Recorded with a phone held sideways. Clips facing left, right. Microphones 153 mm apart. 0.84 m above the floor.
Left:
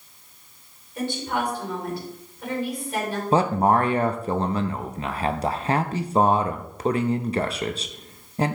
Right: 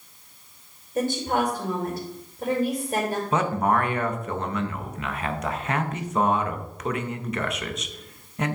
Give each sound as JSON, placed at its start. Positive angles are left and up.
{"t": 0.9, "sound": "a woman speaking", "side_deg": -45, "distance_m": 3.5}
{"t": 3.3, "sound": "a man speaking", "side_deg": 30, "distance_m": 0.7}